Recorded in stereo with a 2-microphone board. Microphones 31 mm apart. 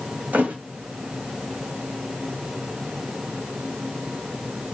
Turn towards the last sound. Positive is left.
turn(degrees=-65)  # may be behind; listen again after turning